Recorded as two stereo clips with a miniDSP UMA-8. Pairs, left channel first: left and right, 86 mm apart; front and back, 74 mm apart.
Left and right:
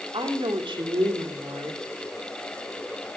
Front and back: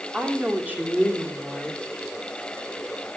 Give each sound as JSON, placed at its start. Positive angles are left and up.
{"t": 0.1, "sound": "a woman speaking", "azimuth_deg": -110, "distance_m": 2.5}